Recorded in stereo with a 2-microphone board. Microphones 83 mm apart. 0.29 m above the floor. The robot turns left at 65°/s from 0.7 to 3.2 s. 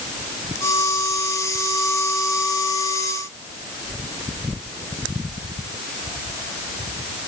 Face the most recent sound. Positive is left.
No sound to turn to.